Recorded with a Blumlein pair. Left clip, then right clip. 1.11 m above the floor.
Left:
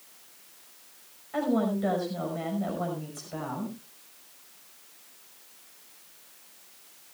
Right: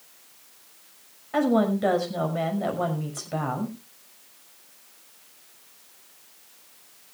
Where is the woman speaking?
70° right, 5.5 m.